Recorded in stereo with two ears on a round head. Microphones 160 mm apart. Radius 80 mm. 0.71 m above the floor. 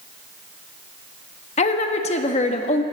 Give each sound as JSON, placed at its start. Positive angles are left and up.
{"t": 1.6, "sound": "a woman speaking", "side_deg": 40, "distance_m": 1.1}